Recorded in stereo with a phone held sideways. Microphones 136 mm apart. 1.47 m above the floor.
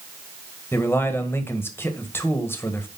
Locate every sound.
0.7 s a man speaking: 15° left (ahead or behind), 1.6 m